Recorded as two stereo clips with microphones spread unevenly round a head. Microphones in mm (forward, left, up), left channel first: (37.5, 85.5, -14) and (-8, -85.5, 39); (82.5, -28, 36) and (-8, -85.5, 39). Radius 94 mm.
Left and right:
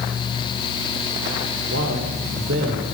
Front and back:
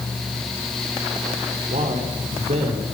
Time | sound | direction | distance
1.7 | a man speaking | 130° right | 5 m